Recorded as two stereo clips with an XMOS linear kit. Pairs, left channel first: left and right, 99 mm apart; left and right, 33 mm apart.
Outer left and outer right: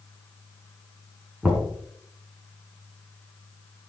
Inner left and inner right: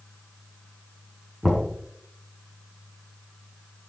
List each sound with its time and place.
1.4 s knocking: 15° right (ahead or behind), 4 m